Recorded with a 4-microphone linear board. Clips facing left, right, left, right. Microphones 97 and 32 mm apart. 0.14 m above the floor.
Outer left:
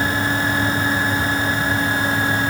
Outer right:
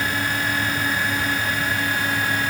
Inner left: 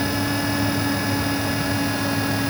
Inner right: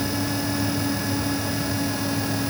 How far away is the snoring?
No snoring in this recording.